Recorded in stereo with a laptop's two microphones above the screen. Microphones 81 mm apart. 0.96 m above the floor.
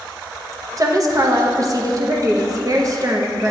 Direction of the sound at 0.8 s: 45° right (ahead or behind).